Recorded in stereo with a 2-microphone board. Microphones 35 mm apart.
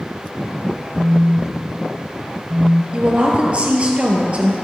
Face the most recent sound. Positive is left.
turn(degrees=-35)  # may be behind; listen again after turning